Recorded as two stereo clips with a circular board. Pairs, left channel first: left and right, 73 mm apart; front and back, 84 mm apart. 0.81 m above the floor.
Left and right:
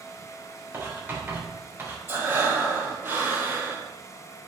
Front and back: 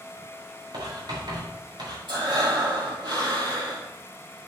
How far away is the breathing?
About 4 m.